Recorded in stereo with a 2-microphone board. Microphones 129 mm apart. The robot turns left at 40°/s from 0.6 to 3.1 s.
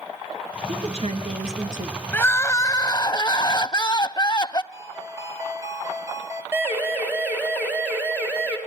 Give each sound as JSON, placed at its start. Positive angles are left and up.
{"t": 0.7, "sound": "a woman speaking", "azimuth_deg": -50, "distance_m": 4.0}
{"t": 2.1, "sound": "crying", "azimuth_deg": 155, "distance_m": 0.5}
{"t": 4.7, "sound": "a ringtone", "side_deg": -25, "distance_m": 2.5}
{"t": 6.5, "sound": "a siren", "side_deg": -15, "distance_m": 4.5}